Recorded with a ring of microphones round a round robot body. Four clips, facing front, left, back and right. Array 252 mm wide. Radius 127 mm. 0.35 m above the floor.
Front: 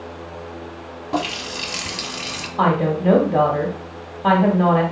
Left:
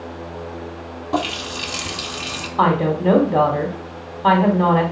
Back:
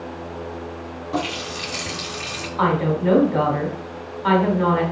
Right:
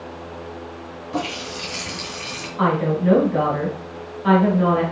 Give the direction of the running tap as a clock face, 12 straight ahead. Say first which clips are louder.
Left 4 dB, front 2 dB; 10 o'clock.